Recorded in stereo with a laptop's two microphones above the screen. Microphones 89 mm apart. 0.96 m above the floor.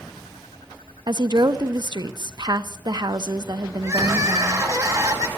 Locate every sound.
1.1 s a woman speaking: 55° right (ahead or behind), 0.7 m
3.8 s crying: 40° right (ahead or behind), 0.8 m